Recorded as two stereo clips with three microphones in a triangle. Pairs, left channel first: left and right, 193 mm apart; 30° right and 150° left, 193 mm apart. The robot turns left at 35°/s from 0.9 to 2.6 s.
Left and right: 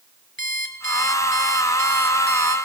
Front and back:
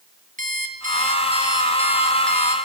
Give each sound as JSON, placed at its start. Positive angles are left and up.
{"t": 0.4, "sound": "an alarm clock", "azimuth_deg": 105, "distance_m": 3.0}